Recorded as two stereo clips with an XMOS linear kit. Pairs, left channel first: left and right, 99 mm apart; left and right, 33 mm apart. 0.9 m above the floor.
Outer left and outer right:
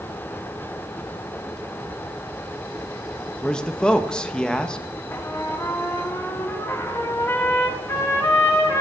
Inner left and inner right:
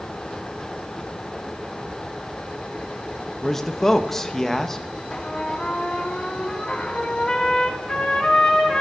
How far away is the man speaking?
About 0.6 m.